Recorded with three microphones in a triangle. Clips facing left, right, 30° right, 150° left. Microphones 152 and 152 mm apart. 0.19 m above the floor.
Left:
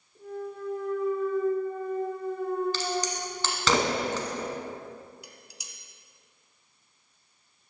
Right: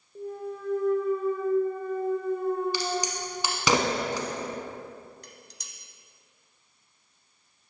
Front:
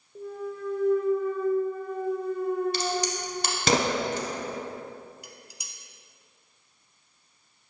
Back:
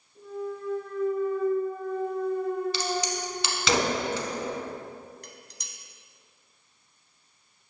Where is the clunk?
40° right, 1.9 m.